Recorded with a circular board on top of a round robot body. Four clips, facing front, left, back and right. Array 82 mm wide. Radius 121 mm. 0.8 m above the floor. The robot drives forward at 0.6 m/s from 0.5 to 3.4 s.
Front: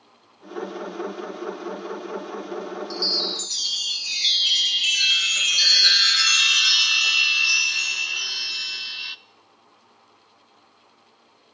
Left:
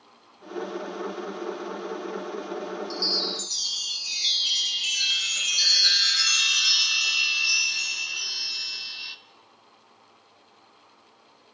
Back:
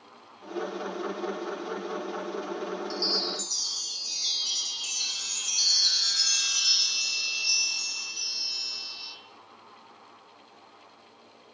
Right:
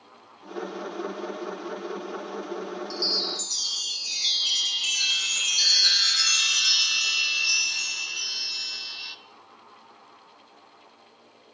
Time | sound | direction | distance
2.9 | a chime | straight ahead | 1.2 m